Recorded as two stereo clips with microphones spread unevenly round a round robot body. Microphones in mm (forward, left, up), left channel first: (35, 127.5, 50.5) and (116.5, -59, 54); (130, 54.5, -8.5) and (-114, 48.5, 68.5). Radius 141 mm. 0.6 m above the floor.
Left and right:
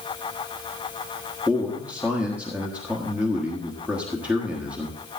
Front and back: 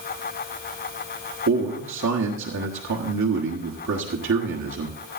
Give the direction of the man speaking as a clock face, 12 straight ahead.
5 o'clock.